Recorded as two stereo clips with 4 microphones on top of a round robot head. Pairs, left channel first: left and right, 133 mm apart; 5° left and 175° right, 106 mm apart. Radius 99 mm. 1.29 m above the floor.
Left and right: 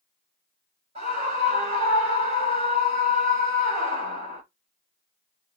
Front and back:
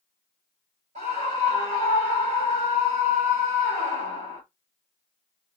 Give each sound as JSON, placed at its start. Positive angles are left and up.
{"t": 0.9, "sound": "a scream", "azimuth_deg": -140, "distance_m": 6.5}